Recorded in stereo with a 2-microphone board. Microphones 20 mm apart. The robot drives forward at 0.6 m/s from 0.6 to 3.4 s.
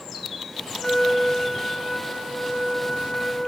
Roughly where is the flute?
Left.